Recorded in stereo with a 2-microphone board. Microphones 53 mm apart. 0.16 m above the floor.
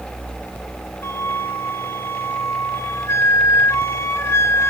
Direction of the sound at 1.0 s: 60° left (ahead or behind).